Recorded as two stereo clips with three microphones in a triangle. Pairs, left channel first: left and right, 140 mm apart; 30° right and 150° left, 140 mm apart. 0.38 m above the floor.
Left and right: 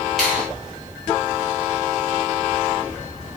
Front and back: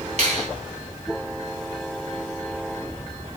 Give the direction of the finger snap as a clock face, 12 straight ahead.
6 o'clock.